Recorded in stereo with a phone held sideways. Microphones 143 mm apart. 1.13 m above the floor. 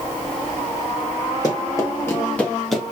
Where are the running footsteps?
30° left (ahead or behind), 1.6 m; by 2.8 s centre (ahead or behind), 1.1 m.